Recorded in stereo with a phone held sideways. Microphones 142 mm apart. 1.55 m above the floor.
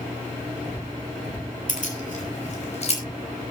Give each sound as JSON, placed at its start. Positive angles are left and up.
{"t": 1.7, "sound": "keys jangling", "side_deg": 70, "distance_m": 4.5}